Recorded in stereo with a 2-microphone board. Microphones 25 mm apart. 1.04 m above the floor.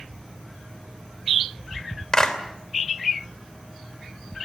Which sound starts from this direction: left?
A clap, at 2.1 s.